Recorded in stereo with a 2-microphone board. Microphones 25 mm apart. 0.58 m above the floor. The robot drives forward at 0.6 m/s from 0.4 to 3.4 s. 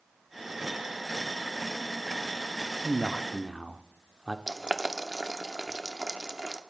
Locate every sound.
2.8 s a man speaking: 15° right (ahead or behind), 0.8 m; by 4.4 s 10° right (ahead or behind), 1.0 m
4.5 s boiling: 25° right (ahead or behind), 0.9 m